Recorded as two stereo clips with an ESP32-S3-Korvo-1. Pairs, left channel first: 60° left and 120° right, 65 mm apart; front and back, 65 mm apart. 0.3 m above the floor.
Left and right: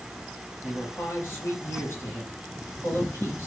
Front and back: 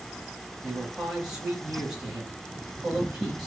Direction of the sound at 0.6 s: 105° left.